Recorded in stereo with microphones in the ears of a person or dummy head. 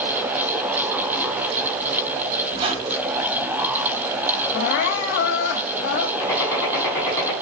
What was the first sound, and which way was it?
A squeak, 30° right (ahead or behind).